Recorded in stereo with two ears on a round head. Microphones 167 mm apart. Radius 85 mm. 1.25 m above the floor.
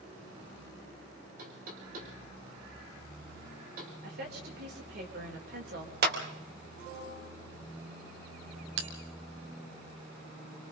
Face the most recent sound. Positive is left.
turn(degrees=-70)  # may be behind; listen again after turning